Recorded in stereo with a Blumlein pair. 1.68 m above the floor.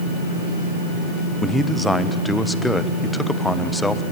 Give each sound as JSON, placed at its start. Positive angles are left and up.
{"t": 1.4, "sound": "a man speaking", "azimuth_deg": 5, "distance_m": 1.2}